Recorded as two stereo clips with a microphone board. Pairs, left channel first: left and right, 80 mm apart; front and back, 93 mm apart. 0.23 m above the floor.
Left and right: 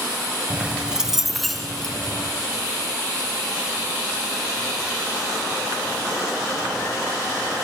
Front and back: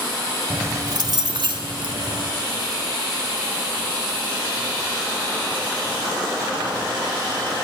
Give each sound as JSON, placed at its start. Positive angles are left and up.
{"t": 0.5, "sound": "keys jangling", "azimuth_deg": -130, "distance_m": 0.7}